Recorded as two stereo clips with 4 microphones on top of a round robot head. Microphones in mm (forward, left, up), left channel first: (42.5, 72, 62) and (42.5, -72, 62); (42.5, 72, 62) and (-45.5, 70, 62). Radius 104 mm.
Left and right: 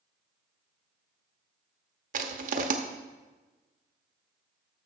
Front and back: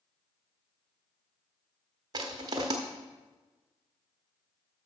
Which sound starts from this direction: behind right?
Crushing, at 2.1 s.